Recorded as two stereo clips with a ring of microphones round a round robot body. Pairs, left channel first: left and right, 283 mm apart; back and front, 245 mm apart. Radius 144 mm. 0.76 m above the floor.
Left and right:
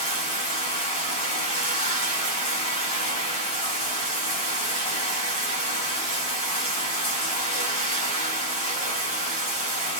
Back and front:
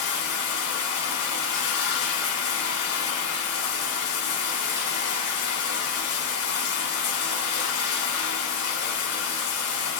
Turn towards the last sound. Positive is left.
turn(degrees=165)